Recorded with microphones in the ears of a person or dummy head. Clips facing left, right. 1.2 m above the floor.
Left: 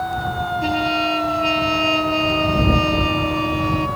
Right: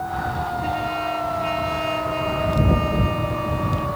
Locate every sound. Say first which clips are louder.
0.6 s a trumpet: left 7 dB; 55° left (ahead or behind)